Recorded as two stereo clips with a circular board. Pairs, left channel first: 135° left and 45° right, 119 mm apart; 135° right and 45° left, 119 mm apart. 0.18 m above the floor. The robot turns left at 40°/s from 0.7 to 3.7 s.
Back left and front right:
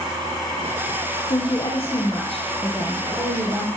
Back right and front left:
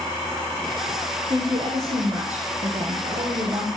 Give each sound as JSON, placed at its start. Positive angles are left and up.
{"t": 1.3, "sound": "a woman speaking", "azimuth_deg": 90, "distance_m": 5.5}